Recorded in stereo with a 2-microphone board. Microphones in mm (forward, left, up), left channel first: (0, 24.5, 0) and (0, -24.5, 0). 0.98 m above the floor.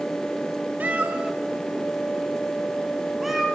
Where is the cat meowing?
30° right (ahead or behind), 1.0 m; by 3.5 s 5° right (ahead or behind), 2.5 m.